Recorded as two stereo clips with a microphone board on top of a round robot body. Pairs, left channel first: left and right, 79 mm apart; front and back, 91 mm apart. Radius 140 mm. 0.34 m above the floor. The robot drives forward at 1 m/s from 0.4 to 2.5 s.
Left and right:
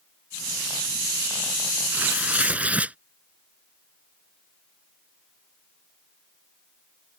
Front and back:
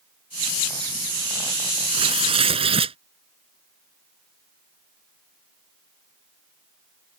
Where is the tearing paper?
160° right; by 3.0 s 165° right.